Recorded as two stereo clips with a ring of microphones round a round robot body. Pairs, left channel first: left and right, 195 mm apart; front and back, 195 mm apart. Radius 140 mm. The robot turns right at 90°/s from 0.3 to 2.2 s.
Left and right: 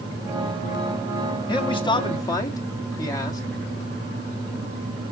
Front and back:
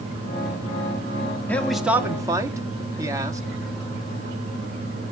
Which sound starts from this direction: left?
A man speaking, at 1.5 s.